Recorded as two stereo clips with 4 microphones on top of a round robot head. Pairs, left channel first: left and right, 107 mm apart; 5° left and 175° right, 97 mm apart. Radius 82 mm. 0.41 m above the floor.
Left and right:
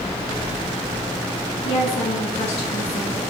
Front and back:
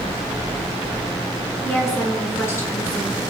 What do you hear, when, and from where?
1.6 s a woman speaking: 70° left, 5.5 m